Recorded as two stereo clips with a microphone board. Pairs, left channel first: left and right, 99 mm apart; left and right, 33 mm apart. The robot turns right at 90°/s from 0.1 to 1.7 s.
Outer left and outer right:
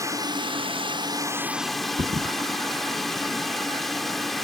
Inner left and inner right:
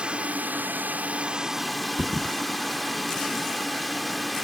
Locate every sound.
0.0 s a drone: 145° right; by 4.4 s straight ahead
2.0 s a thud: 55° right (ahead or behind)